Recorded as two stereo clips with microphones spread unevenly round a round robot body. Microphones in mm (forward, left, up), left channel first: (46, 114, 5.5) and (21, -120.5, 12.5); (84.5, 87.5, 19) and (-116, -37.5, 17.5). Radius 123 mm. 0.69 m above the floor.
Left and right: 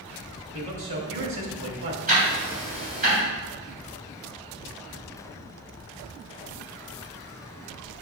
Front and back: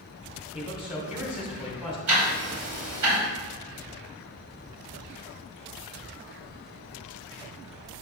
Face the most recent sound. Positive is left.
turn(degrees=-155)